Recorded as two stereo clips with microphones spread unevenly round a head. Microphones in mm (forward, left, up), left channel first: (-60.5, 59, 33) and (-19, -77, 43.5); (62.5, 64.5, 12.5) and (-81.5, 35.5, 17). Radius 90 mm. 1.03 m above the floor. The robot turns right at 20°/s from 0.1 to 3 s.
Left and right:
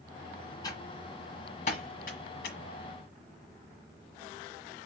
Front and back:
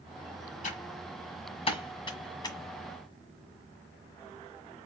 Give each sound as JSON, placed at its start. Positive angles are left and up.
{"t": 0.6, "sound": "typing on a keyboard", "azimuth_deg": 35, "distance_m": 1.6}